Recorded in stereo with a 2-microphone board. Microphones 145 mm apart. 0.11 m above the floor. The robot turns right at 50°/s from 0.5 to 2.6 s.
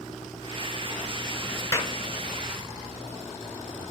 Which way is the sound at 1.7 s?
25° left (ahead or behind).